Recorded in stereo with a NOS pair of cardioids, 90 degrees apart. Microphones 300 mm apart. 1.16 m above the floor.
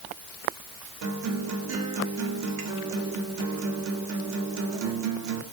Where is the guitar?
60° right, 2 m.